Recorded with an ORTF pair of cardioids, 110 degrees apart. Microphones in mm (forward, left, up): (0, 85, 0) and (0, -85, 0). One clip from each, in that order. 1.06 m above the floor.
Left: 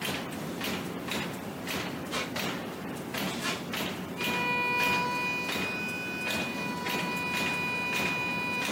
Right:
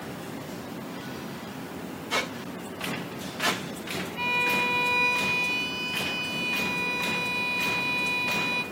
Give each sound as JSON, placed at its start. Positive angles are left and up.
{"t": 2.1, "sound": "a squeak", "azimuth_deg": -65, "distance_m": 2.5}
{"t": 4.2, "sound": "a violin", "azimuth_deg": -65, "distance_m": 2.5}